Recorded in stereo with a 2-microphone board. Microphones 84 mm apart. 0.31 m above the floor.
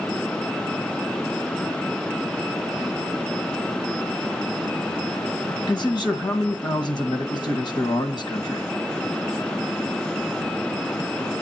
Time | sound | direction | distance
5.7 | a man speaking | 60° left (ahead or behind) | 1.9 m